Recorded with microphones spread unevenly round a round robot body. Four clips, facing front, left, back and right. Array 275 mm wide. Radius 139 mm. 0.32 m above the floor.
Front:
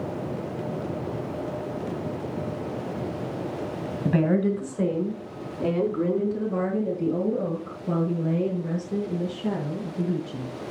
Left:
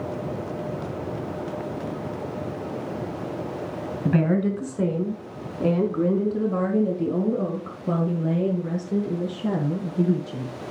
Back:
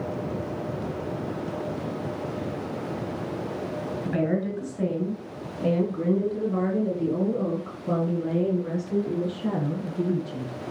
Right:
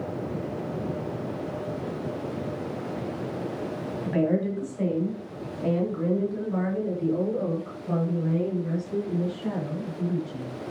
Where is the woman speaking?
60° left, 4.5 m; by 10.5 s 115° left, 7.5 m.